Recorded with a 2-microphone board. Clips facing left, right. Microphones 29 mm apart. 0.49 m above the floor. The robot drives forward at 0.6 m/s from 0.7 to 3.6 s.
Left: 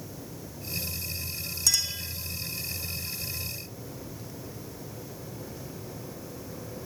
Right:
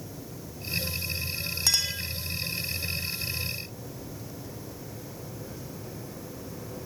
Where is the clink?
35° right (ahead or behind), 2.5 m; by 2.0 s 40° right (ahead or behind), 2 m.